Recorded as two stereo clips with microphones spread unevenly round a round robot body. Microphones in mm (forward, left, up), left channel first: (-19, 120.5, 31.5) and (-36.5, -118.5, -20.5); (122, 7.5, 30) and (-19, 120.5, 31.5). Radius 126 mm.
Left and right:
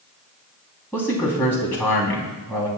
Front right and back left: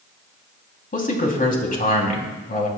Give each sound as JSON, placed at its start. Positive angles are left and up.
{"t": 0.9, "sound": "a man speaking", "azimuth_deg": 0, "distance_m": 3.0}